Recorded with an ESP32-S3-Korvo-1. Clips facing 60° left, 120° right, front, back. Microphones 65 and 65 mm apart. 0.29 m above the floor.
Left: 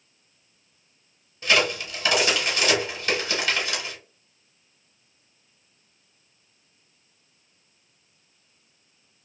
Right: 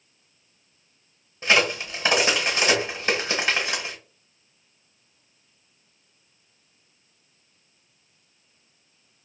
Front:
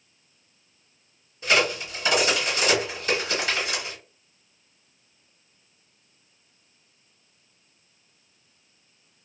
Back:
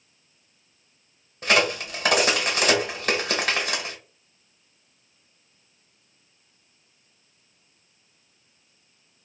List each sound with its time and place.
1.4 s a crack: 175° right, 1.4 m